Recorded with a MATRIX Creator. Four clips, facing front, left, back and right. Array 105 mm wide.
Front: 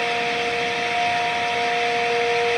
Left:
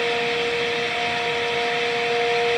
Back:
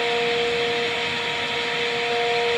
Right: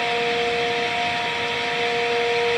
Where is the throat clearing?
I don't hear throat clearing.